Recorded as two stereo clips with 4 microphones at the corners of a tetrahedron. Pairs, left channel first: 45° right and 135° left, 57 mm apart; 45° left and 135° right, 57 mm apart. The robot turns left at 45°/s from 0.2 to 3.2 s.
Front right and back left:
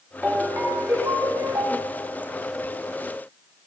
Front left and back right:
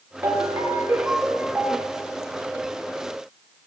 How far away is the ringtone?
About 5 m.